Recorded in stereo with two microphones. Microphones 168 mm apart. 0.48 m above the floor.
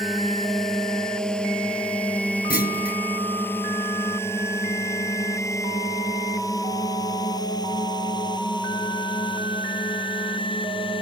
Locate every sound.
0.0 s a drone: centre (ahead or behind); by 11.0 s 30° left (ahead or behind)
2.5 s a clunk: 65° left (ahead or behind)